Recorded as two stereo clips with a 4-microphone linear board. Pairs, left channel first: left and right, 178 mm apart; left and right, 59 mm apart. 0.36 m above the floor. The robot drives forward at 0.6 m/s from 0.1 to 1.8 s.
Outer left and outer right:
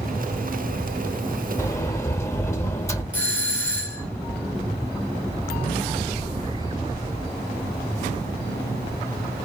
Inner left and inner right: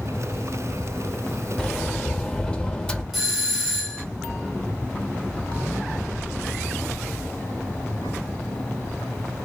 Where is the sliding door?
20° left (ahead or behind), 0.5 m; by 3.0 s 15° left (ahead or behind), 0.5 m.